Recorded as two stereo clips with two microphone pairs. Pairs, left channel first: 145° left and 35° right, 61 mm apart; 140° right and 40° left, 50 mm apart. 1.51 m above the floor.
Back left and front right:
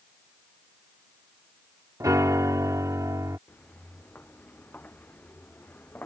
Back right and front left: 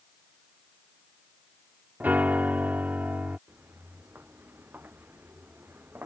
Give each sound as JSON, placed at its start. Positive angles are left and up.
{"t": 2.0, "sound": "a piano", "azimuth_deg": -10}
{"t": 3.5, "sound": "footsteps", "azimuth_deg": 85}